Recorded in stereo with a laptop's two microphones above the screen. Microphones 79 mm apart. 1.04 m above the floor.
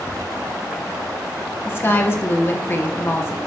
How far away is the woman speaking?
About 0.5 m.